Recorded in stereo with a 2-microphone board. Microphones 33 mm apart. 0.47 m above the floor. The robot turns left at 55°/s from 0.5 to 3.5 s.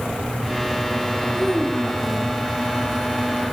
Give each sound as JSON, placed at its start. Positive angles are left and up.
{"t": 1.3, "sound": "a child speaking", "azimuth_deg": -160, "distance_m": 5.0}